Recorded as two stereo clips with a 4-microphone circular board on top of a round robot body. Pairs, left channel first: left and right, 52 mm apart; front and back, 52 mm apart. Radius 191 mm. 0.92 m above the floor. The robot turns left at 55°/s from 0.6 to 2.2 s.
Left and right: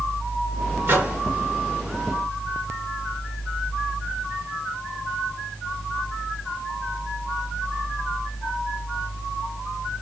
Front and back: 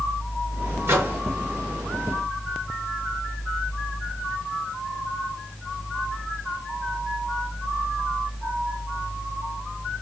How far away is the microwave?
About 1.5 m.